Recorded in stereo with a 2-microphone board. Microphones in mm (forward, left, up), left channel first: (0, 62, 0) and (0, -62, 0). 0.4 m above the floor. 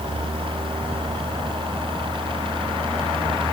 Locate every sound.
Only background noise.